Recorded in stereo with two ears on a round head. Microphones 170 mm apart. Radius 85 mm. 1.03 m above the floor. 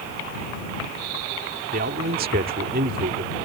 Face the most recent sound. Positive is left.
turn(degrees=-50)  # may be behind; listen again after turning